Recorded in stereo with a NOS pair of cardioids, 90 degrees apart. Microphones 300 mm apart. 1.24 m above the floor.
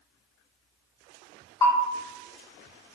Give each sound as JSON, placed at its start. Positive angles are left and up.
{"t": 1.6, "sound": "a bell", "azimuth_deg": 15, "distance_m": 2.0}